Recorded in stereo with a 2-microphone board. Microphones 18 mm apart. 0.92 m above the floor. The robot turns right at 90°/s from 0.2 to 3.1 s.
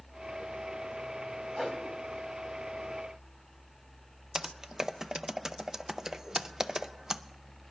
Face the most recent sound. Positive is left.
turn(degrees=-35)  # may be behind; listen again after turning